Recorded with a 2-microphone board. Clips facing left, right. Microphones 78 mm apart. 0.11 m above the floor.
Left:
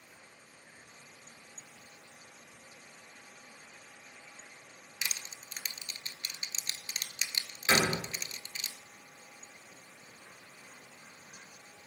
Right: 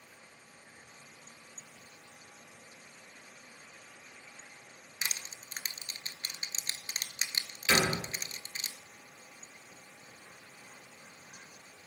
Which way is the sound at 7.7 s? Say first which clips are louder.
Even; 30° left (ahead or behind).